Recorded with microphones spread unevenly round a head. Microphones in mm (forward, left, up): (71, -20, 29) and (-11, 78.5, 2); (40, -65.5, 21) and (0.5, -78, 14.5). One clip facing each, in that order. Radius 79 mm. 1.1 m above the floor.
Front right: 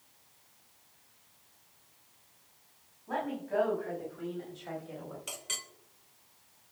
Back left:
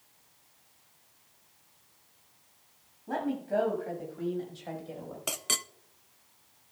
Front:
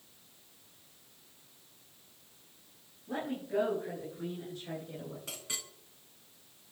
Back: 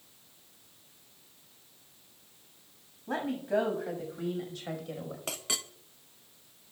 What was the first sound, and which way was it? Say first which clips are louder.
A woman speaking: back left 3 dB, back 5 dB; 170° right.